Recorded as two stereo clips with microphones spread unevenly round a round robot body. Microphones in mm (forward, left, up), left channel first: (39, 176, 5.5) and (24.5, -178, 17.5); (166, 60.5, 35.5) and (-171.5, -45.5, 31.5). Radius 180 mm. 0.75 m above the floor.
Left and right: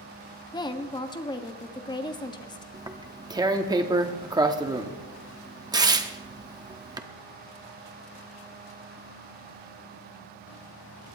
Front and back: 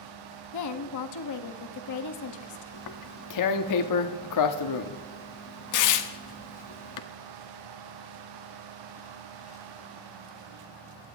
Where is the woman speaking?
15° left, 1.5 m.